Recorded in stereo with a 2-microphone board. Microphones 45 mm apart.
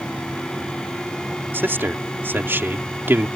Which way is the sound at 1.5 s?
50° right (ahead or behind).